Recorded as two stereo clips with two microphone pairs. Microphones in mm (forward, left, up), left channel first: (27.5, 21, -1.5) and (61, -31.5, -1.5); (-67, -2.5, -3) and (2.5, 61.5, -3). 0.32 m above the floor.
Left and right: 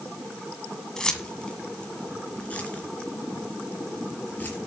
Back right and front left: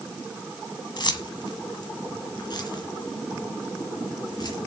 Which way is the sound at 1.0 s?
160° right.